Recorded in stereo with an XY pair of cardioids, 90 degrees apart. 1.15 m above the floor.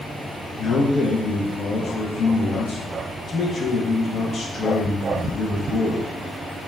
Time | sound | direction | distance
0.6 | a man speaking | 65° left | 0.6 m